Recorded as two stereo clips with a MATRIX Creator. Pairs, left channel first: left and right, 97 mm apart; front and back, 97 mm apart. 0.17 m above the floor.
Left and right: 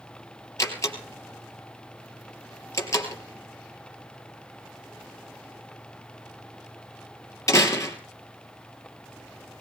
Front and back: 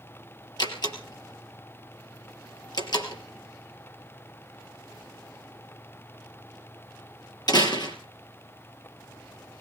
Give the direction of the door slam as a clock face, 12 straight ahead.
11 o'clock.